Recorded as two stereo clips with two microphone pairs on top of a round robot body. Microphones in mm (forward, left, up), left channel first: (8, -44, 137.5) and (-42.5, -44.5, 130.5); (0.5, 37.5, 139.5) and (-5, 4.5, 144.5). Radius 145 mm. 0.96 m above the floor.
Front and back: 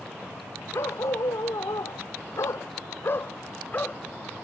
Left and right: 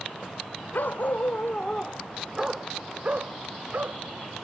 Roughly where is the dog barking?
Ahead left.